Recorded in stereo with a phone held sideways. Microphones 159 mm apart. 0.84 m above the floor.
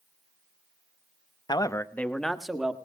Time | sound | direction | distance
1.5 | a man speaking | 25° left (ahead or behind) | 0.9 m